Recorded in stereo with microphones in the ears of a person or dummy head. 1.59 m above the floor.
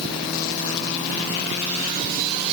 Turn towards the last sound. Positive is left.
No sound to turn to.